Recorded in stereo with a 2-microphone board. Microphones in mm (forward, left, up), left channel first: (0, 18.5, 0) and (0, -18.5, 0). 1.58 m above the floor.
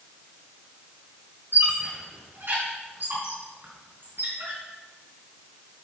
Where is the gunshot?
No gunshot in this recording.